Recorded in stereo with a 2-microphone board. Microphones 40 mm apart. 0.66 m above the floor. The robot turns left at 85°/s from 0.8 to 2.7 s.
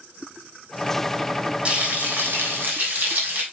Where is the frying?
30° right, 3 m; by 3.4 s 120° right, 3 m.